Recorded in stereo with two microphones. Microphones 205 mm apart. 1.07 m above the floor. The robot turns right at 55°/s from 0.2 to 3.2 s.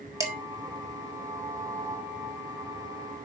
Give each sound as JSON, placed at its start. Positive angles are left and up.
{"t": 0.2, "sound": "dishes clattering", "side_deg": -15, "distance_m": 1.7}